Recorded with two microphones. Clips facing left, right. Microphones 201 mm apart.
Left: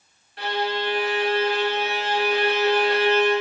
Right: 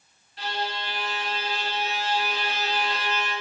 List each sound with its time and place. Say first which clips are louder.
0.4 s a violin: left 7 dB; 70° left (ahead or behind), 0.5 m